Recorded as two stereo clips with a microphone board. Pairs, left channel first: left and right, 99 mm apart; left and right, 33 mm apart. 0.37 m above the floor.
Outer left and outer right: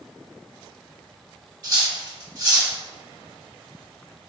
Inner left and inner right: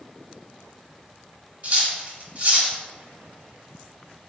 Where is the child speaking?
No child speaking in this recording.